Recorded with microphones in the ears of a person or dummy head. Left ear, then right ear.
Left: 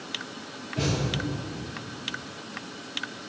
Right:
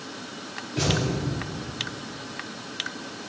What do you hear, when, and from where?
0.8 s a thud: 15° right (ahead or behind), 1.7 m